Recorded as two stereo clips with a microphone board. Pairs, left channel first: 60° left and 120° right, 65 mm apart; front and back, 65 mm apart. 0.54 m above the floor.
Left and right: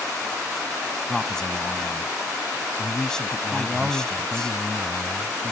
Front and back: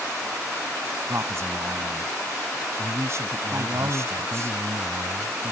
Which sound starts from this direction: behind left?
A man speaking, at 1.1 s.